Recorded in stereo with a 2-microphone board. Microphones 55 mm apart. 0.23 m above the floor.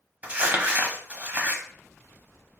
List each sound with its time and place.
0.2 s crumpling: 25° right (ahead or behind), 0.7 m